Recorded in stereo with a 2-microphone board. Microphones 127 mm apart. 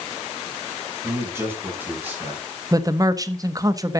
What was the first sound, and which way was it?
A man speaking, 20° right (ahead or behind).